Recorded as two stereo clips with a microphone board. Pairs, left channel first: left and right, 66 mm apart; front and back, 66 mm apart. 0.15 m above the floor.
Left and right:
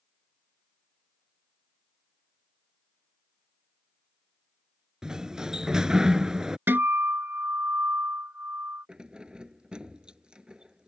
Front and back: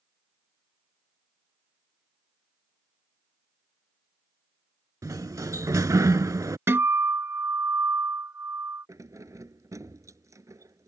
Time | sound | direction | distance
5.0 | a sliding door | 170° right | ?
6.7 | a guitar | 140° right | ?
8.9 | keys jangling | 165° right | ?